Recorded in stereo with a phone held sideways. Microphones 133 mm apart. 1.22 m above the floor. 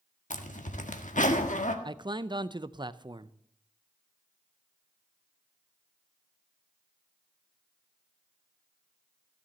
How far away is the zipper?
About 1.5 m.